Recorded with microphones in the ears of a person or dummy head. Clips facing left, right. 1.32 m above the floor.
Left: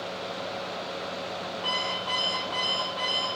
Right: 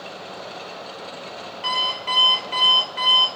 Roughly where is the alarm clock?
Right.